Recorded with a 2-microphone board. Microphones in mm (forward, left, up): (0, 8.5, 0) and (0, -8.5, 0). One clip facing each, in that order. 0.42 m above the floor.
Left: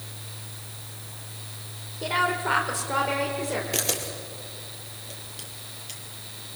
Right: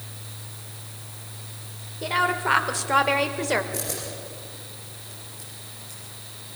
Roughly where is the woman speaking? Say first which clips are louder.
Right 2 dB; centre.